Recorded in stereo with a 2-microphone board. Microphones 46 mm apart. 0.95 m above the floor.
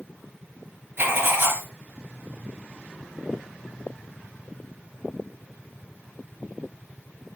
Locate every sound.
1.0 s writing: 55° right (ahead or behind), 2.5 m